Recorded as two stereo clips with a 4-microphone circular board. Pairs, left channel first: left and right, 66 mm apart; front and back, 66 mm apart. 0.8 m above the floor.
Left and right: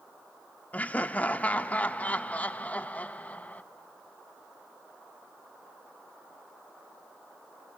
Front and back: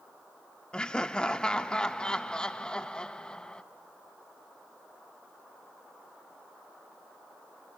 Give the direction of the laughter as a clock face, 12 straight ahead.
10 o'clock.